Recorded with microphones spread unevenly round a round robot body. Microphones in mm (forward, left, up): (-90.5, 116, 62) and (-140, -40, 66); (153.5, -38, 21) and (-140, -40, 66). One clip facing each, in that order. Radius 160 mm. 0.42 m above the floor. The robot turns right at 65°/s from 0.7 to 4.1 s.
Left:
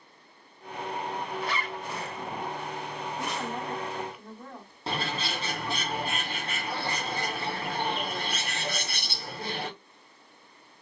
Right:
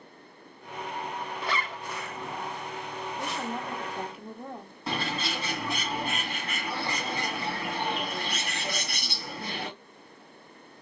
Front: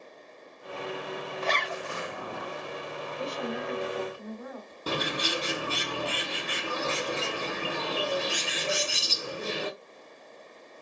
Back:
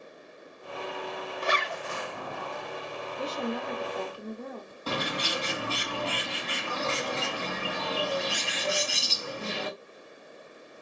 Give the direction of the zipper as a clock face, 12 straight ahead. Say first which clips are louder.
Even, back 1 dB; 4 o'clock.